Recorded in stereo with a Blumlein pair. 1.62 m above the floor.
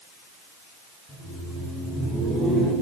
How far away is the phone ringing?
No phone ringing in this recording.